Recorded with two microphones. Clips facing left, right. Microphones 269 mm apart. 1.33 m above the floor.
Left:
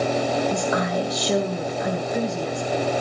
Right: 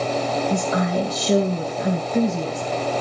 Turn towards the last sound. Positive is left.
turn(degrees=-30)  # may be behind; listen again after turning